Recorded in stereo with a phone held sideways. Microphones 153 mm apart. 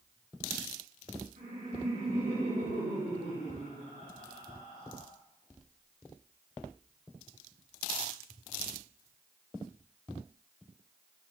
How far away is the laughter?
About 5.5 m.